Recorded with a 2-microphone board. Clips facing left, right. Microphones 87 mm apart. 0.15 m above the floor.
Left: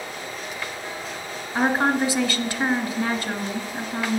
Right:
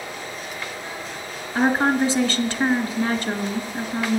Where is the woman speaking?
10° left (ahead or behind), 1.7 m.